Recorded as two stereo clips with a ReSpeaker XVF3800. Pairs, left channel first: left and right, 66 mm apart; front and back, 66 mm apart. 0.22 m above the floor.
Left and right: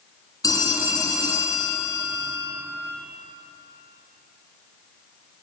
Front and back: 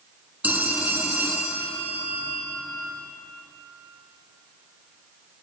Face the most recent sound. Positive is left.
turn(degrees=115)